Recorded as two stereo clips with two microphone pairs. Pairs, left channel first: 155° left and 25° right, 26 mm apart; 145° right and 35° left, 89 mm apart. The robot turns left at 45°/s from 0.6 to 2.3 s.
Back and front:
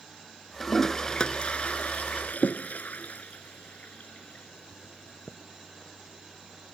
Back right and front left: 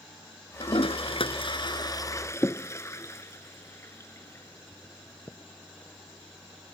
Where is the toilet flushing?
125° right; by 5.4 s 160° left.